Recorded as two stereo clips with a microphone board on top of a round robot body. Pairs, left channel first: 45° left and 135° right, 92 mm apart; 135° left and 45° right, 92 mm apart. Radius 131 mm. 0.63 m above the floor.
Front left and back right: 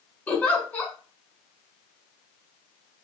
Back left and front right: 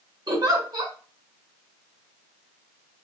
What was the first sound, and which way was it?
A giggle, 15° right.